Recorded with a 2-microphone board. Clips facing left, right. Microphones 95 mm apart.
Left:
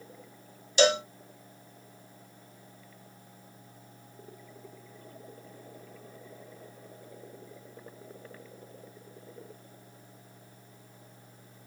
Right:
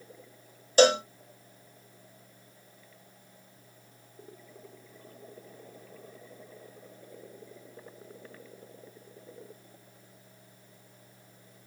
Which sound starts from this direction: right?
A cowbell, at 0.8 s.